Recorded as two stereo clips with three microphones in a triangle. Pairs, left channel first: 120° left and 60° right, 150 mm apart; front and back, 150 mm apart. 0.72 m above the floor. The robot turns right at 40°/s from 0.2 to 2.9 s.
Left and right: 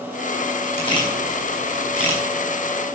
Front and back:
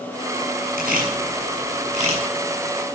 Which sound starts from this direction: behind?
A camera shutter, at 0.8 s.